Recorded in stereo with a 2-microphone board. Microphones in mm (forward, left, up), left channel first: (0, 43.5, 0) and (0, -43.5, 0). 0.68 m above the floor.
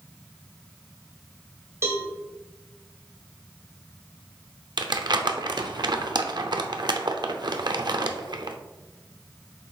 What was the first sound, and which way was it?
A cowbell, 30° right (ahead or behind).